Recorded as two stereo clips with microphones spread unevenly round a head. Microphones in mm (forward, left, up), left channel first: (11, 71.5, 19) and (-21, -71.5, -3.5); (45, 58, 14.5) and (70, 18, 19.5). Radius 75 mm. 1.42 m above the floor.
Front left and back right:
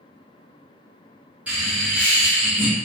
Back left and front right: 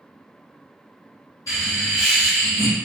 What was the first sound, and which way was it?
Laughter, 175° left.